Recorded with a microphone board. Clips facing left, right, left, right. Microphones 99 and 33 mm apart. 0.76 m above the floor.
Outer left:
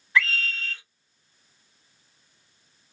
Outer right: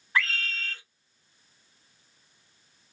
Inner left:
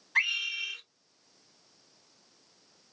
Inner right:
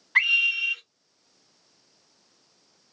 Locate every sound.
0.1 s a scream: 45° right (ahead or behind), 2.0 m